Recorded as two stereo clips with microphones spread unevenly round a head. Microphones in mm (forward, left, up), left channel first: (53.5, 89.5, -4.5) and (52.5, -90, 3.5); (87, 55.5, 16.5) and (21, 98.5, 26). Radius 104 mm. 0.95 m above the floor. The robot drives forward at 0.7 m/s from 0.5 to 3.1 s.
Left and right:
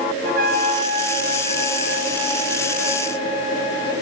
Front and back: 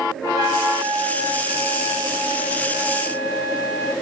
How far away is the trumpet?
About 0.9 m.